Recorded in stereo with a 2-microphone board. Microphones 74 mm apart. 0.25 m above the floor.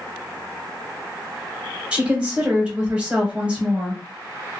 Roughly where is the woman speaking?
Centre.